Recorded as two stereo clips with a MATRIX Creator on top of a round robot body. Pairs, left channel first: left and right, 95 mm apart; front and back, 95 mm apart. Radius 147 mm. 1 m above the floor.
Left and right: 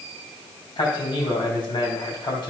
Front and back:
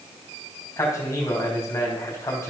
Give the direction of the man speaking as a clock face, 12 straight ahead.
10 o'clock.